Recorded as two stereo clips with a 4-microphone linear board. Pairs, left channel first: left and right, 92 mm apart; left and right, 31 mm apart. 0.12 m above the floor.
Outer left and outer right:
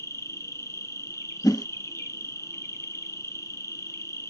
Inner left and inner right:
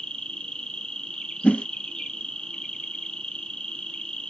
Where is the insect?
35° left (ahead or behind), 0.8 m.